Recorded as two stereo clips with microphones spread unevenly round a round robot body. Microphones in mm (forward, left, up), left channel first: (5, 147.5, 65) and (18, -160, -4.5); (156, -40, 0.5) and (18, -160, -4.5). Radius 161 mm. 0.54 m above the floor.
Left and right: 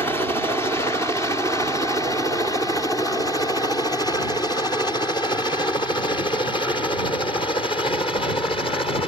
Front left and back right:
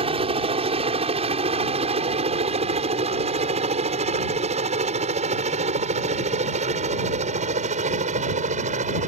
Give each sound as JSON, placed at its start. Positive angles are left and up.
{"t": 0.0, "sound": "a helicopter", "azimuth_deg": -170}